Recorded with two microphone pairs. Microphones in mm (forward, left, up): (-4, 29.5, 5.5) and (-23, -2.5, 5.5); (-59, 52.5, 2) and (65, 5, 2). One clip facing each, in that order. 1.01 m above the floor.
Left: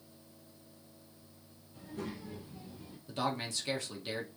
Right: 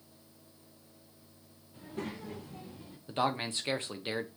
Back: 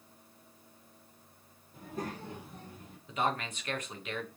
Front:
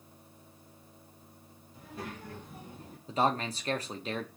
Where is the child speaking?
170° right, 1.1 m; by 3.0 s 65° right, 0.8 m.